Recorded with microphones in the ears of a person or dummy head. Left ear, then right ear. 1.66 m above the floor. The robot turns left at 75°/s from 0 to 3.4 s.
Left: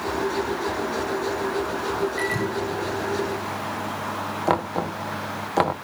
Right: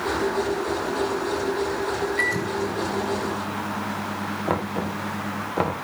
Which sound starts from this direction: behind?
A microwave, at 2.2 s.